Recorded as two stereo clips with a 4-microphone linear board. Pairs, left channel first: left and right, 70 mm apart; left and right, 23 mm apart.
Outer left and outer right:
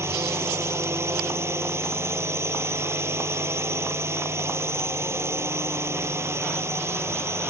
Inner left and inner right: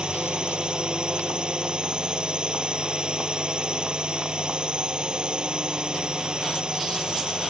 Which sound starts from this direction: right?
A drone, at 0.0 s.